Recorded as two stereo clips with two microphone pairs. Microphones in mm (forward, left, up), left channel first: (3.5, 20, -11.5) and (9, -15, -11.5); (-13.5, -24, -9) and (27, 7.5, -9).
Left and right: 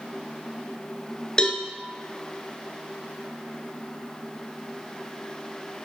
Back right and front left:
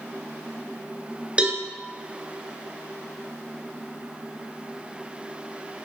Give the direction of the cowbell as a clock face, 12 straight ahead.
10 o'clock.